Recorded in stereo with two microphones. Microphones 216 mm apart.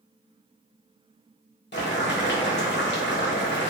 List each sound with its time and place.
1.7 s boiling: 55° left (ahead or behind), 0.9 m